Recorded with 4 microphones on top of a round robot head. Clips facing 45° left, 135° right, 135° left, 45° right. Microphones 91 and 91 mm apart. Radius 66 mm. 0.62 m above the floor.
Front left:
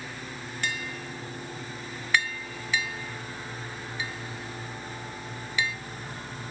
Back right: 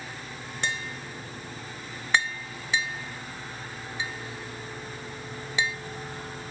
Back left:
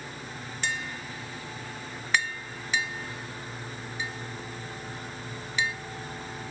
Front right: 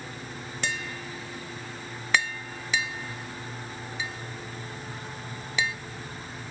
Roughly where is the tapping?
Ahead right.